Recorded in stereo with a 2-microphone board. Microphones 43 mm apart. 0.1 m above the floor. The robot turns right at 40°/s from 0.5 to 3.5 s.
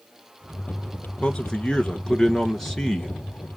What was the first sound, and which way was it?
A man speaking, 20° left (ahead or behind).